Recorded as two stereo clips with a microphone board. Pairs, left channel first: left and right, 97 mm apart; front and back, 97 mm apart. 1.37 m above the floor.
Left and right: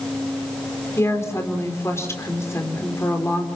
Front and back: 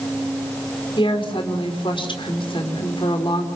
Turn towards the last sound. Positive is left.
turn(degrees=30)